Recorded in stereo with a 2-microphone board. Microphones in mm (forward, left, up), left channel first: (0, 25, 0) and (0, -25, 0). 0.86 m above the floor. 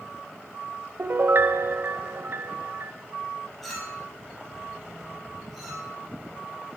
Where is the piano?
50° right (ahead or behind), 0.8 m.